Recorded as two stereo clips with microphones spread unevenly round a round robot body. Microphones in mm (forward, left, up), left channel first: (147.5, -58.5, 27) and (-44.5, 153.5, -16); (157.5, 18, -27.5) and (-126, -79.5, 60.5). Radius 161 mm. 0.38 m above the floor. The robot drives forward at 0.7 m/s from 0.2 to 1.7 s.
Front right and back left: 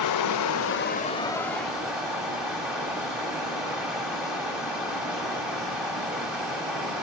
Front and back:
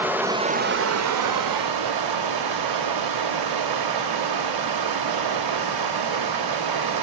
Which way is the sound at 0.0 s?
65° right.